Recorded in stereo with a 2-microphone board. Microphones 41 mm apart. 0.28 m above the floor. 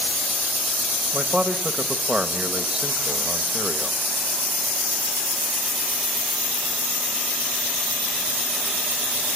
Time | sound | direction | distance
1.1 | a man speaking | 20° right (ahead or behind) | 1.0 m